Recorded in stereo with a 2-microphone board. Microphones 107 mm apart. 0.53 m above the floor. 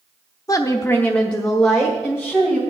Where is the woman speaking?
30° left (ahead or behind), 0.7 m; by 2.6 s 5° right (ahead or behind), 2.5 m.